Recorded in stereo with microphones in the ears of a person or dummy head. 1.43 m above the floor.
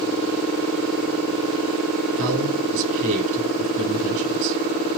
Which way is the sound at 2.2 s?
40° right (ahead or behind).